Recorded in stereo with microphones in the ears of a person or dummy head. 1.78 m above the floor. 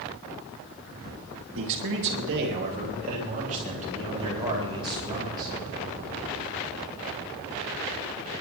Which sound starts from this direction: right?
A man speaking, at 1.6 s.